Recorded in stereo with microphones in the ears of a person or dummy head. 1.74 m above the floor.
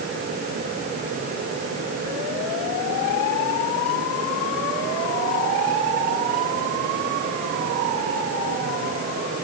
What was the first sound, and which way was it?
Only background noise.